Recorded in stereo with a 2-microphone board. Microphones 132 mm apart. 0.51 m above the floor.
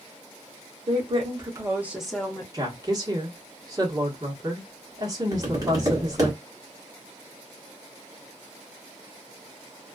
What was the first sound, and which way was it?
A woman speaking, 50° right (ahead or behind).